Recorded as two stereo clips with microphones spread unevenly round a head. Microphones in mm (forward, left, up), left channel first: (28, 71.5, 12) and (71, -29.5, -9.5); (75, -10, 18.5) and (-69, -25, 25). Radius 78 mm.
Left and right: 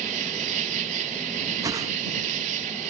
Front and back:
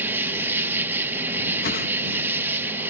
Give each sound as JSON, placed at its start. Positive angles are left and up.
{"t": 0.0, "sound": "an insect", "azimuth_deg": -95}
{"t": 1.6, "sound": "a whoosh", "azimuth_deg": -10}